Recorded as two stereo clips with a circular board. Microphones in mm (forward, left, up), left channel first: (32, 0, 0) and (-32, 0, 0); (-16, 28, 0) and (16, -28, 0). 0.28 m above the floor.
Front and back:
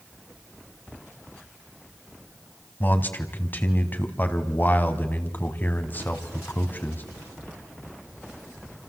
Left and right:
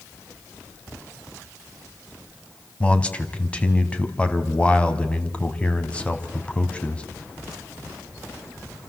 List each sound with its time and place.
2.8 s a man speaking: 55° left, 2.5 m